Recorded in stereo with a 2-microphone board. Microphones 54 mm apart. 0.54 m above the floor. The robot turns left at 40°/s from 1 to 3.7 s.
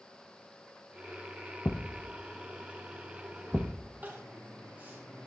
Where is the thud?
40° left (ahead or behind), 0.9 m; by 3.9 s 25° right (ahead or behind), 0.9 m.